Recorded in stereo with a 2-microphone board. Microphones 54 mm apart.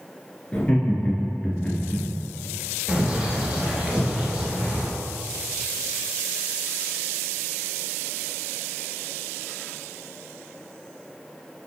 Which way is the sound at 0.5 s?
30° left (ahead or behind).